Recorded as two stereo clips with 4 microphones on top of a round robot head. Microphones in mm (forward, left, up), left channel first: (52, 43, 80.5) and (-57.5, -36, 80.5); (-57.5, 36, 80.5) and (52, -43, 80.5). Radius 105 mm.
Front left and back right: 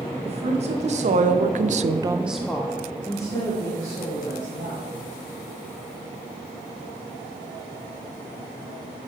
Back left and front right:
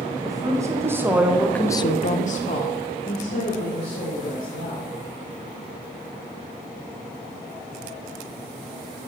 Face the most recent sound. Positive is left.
turn(degrees=100)